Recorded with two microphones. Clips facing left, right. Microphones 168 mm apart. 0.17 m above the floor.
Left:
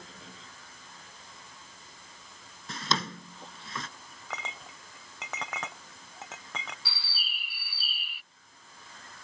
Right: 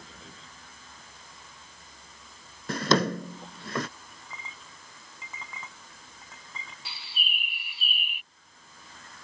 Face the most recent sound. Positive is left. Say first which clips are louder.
# right 3 dB
turn(degrees=-20)  # may be behind; listen again after turning